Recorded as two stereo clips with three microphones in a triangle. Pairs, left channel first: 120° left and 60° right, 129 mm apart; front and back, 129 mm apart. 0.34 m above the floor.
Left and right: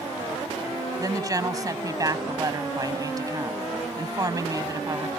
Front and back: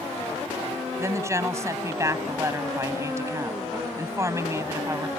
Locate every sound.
1.0 s a woman speaking: 115° right